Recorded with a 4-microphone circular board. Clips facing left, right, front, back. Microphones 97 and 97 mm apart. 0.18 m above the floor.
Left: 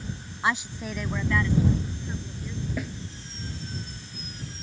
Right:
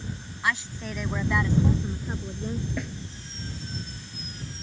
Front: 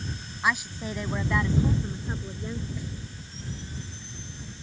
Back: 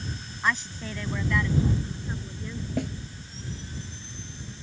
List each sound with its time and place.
0.4 s a woman speaking: 75° left; by 2.7 s 60° right
2.8 s a snare drum: 175° left